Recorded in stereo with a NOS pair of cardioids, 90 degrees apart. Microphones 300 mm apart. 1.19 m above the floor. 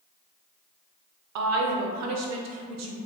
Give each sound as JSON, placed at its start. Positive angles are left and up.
{"t": 1.4, "sound": "a woman speaking", "azimuth_deg": -65, "distance_m": 0.5}